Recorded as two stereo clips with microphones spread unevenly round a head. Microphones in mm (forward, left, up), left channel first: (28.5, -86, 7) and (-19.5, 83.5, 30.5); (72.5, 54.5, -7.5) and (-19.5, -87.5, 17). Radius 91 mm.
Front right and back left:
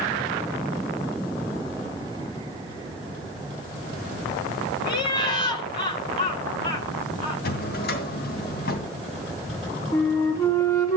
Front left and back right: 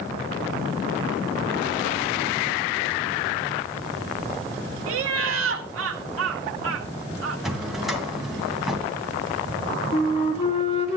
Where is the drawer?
40° right, 2.5 m.